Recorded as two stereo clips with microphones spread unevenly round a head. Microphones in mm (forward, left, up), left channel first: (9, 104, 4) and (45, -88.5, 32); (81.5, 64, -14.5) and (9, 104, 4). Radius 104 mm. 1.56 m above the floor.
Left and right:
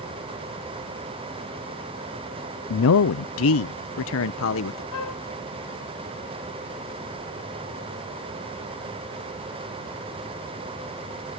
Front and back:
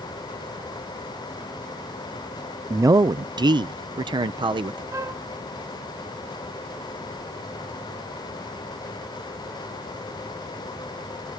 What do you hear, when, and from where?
2.7 s a man speaking: 95° left; by 4.8 s 130° left
4.9 s a flute: 100° left